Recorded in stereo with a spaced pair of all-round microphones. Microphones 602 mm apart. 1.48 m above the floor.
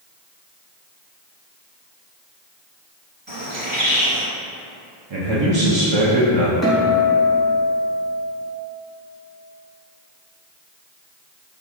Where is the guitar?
Centre (ahead or behind), 1.3 m.